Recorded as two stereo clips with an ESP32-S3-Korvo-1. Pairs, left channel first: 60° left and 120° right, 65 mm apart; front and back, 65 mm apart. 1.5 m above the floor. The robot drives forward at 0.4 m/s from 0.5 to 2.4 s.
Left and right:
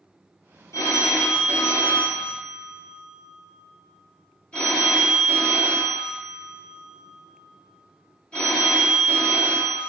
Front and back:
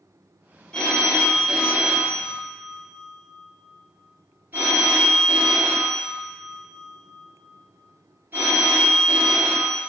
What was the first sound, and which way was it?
A phone ringing, 70° left.